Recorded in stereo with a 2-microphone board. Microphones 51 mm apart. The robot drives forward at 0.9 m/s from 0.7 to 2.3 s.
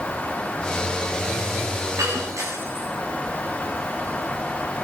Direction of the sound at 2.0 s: 70° right (ahead or behind).